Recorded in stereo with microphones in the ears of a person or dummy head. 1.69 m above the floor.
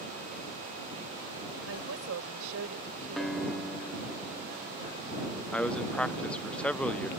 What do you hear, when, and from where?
1.7 s a woman speaking: 80° right
3.2 s a guitar: 5° right (ahead or behind)
5.5 s a man speaking: centre (ahead or behind)